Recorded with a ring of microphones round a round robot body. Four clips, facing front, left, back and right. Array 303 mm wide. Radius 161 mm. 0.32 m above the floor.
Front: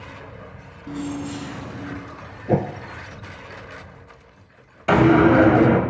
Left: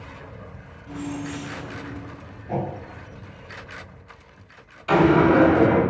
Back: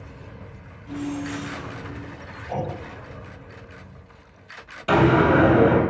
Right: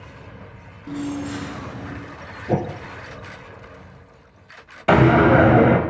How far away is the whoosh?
About 0.9 m.